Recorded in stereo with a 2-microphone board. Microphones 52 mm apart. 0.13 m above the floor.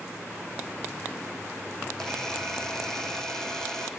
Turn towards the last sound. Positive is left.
turn(degrees=10)  # may be behind; listen again after turning